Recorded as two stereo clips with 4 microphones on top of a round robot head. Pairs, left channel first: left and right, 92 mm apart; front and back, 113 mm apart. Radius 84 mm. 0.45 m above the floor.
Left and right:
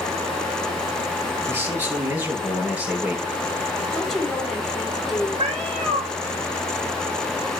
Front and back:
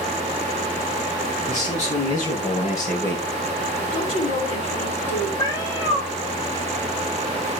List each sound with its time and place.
1.5 s a man speaking: 20° right, 8 m; by 3.2 s 10° right, 6.5 m
3.9 s a woman speaking: 5° left, 7.5 m
5.4 s a cat meowing: 70° right, 1.5 m